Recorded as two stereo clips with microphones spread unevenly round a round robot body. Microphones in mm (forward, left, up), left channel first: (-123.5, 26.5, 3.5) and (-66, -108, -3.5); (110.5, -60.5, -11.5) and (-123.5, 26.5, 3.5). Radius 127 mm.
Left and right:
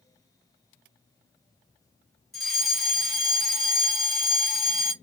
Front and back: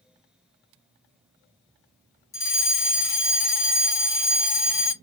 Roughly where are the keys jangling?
I don't hear keys jangling.